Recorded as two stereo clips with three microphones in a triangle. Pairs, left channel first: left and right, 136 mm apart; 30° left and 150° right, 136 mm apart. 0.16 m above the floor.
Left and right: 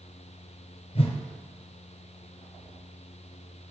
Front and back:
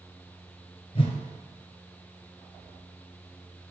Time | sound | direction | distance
0.9 | a whoosh | 70° left | 1.2 m